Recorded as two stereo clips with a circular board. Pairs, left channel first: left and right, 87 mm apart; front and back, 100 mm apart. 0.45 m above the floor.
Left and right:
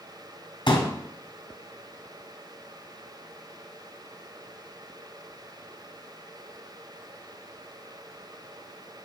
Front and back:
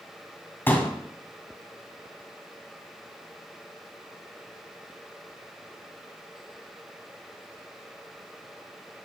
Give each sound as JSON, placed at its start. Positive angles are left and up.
{"t": 0.7, "sound": "a pop", "azimuth_deg": 70, "distance_m": 2.5}